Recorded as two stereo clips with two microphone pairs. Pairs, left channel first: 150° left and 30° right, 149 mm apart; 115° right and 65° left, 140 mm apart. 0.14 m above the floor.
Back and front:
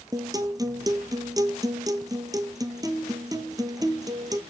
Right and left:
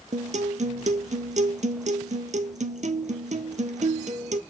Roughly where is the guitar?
Ahead left.